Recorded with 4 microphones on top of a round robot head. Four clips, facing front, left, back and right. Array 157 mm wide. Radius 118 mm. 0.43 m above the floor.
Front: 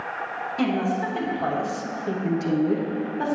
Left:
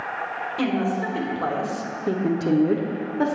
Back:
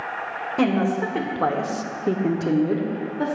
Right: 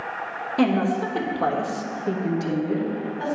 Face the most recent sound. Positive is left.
turn(degrees=85)